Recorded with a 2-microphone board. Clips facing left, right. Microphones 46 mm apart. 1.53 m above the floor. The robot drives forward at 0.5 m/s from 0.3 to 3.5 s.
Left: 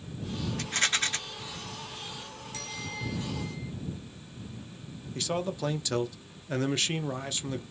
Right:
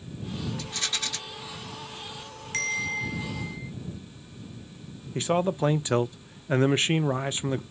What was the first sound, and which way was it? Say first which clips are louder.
A rattle: left 4 dB; 55° left (ahead or behind).